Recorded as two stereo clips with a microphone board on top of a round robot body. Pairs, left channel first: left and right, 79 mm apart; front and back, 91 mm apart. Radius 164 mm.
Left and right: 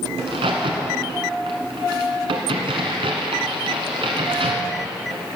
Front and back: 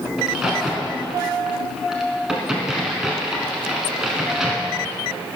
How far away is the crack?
About 1.2 m.